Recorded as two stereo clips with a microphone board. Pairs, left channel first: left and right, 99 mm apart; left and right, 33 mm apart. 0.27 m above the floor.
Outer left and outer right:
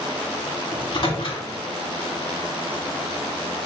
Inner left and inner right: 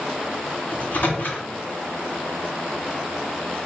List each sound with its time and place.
0.7 s a microwave: 55° left (ahead or behind), 2.0 m